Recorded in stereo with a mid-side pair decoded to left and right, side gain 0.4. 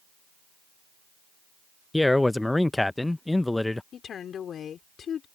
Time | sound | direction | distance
1.9 | a man speaking | 15° left | ?
3.9 | a woman speaking | 60° left | ?